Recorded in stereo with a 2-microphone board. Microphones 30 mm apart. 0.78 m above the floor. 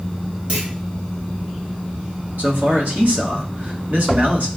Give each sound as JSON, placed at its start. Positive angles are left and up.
{"t": 0.5, "sound": "a clunk", "side_deg": -50, "distance_m": 1.4}
{"t": 2.4, "sound": "a man speaking", "side_deg": -65, "distance_m": 1.2}